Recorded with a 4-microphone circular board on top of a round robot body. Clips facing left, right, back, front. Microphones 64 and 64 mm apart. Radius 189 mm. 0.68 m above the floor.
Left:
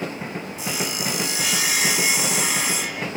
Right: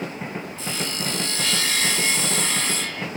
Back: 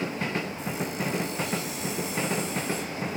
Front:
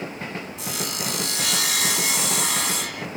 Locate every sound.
0.6 s sawing: 15° left